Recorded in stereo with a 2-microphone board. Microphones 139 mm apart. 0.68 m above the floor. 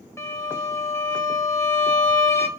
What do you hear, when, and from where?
0.2 s a violin: 20° left (ahead or behind), 0.8 m